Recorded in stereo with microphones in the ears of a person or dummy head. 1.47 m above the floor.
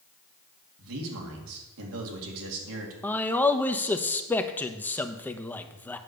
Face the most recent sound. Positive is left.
turn(degrees=5)  # may be behind; listen again after turning